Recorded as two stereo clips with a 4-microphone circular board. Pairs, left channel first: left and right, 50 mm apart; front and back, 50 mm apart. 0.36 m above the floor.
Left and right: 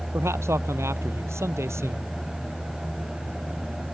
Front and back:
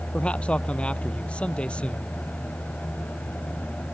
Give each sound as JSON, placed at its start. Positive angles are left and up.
{"t": 0.1, "sound": "a man speaking", "azimuth_deg": -65}